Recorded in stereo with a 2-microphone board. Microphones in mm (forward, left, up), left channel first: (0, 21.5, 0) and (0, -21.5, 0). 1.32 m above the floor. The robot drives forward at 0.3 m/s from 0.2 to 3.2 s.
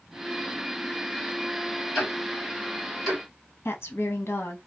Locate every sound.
1.9 s ticking: 5° left (ahead or behind), 1.3 m; by 3.2 s centre (ahead or behind), 1.7 m
3.6 s a woman speaking: 60° left (ahead or behind), 0.5 m